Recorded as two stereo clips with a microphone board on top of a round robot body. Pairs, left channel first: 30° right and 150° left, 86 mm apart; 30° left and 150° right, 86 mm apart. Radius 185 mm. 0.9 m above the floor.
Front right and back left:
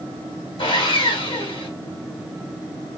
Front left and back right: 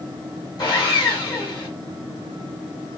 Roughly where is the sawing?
Ahead.